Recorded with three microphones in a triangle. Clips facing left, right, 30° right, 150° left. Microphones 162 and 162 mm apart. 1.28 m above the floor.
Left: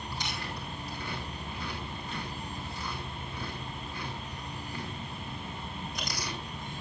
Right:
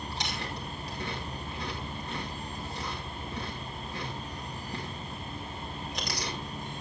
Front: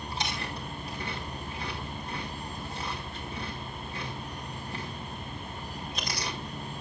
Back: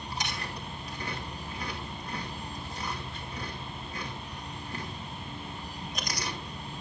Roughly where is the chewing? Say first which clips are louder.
Even, front 2 dB; right.